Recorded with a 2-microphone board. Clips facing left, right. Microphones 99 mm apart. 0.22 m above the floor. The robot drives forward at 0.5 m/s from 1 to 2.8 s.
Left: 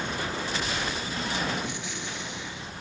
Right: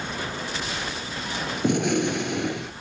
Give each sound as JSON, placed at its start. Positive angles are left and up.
{"t": 1.6, "sound": "a gunshot", "side_deg": -60}